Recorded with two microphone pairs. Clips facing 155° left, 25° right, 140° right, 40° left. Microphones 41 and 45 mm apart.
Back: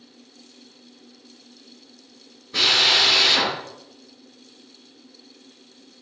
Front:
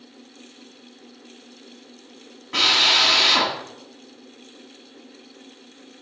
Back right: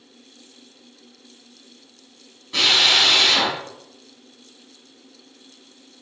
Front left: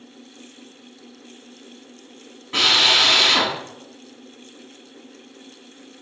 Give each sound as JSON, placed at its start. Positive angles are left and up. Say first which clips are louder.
{"t": 2.5, "sound": "a drill", "louder": "front 1 dB, front left 1 dB", "azimuth_deg": -10, "distance_m": 3.5}